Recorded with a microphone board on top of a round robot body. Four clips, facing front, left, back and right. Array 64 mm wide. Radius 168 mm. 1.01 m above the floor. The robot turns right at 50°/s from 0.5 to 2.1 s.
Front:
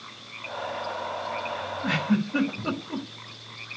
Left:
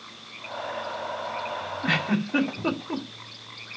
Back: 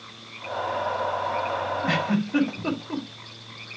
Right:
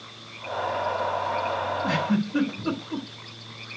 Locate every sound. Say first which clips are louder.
1.8 s a giggle: left 3 dB, front 3 dB; 105° left, 4 m; by 3.1 s 120° left, 4 m